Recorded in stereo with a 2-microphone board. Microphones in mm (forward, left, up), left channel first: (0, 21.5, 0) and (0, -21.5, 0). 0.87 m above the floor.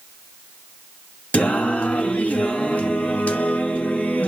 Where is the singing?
30° left (ahead or behind), 1.5 m.